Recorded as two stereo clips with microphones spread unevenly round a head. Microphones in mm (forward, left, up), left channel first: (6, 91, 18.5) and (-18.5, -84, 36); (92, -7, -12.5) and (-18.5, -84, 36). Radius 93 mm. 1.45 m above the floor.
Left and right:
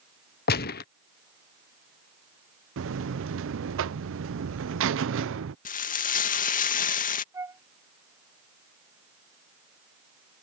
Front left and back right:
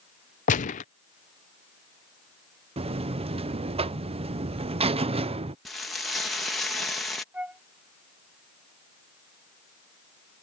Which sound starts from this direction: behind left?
Frying, at 5.7 s.